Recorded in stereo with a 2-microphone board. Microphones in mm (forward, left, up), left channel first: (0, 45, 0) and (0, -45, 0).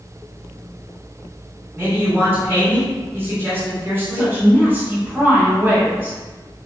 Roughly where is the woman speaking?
Right.